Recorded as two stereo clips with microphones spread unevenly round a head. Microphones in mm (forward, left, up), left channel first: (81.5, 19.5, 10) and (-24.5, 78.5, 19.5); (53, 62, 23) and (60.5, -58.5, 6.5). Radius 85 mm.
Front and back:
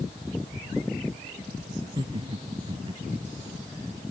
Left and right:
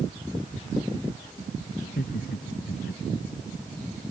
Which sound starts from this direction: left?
Laughter, at 1.8 s.